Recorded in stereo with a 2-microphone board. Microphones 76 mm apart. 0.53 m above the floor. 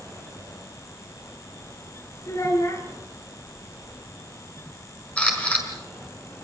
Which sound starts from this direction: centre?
A camera shutter, at 5.2 s.